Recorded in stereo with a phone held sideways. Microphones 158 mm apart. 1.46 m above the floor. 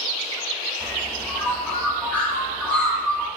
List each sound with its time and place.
0.8 s a bird: 10° left (ahead or behind), 0.9 m